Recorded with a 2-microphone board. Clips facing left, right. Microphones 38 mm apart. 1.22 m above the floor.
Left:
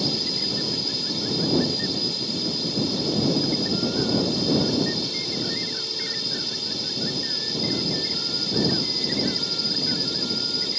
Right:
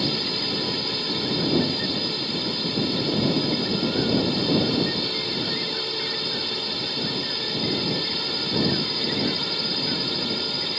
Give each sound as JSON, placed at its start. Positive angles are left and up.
{"t": 0.0, "sound": "a drone", "side_deg": -35}